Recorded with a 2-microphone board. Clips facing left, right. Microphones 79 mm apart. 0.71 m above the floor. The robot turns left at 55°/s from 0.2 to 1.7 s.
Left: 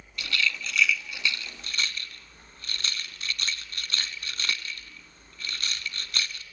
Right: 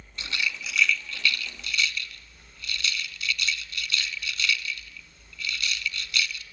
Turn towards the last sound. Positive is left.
turn(degrees=40)  # may be behind; listen again after turning